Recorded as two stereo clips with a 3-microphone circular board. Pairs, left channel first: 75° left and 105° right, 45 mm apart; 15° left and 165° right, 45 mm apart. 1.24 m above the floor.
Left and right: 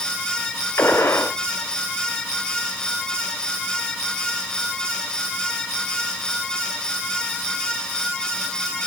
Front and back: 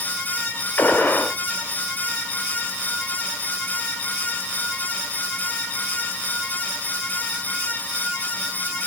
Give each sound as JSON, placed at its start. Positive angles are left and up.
{"t": 0.8, "sound": "a gunshot", "azimuth_deg": 60, "distance_m": 2.0}